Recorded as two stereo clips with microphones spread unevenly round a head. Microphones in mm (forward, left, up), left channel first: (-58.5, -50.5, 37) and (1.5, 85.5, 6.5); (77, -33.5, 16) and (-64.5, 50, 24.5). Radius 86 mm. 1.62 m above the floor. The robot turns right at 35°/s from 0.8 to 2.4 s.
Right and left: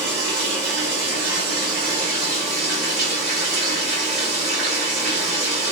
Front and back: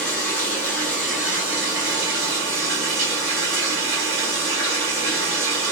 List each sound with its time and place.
0.0 s running water: 50° left, 2.0 m; by 5.7 s 105° left, 2.0 m